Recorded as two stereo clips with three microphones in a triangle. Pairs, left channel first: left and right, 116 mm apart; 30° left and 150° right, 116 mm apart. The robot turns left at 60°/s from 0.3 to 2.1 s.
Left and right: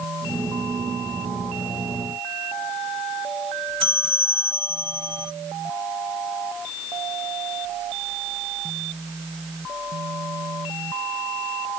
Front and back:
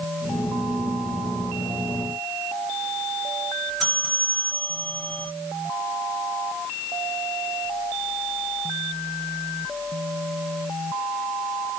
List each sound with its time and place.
3.8 s a bell: 55° right, 1.5 m